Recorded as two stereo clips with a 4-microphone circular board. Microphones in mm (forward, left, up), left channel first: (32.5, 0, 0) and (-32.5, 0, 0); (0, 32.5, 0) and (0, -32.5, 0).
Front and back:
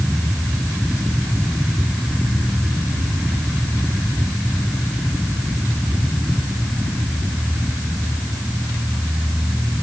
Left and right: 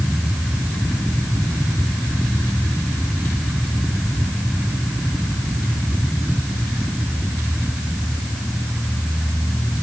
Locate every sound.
Only background noise.